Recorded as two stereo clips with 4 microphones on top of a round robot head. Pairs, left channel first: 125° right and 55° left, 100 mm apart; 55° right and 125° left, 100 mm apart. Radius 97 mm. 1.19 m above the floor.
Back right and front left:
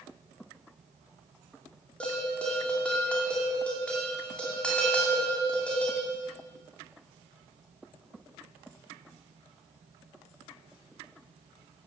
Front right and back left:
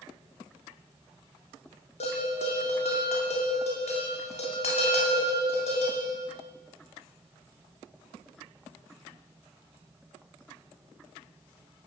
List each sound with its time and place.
2.0 s a bell: 45° right, 4 m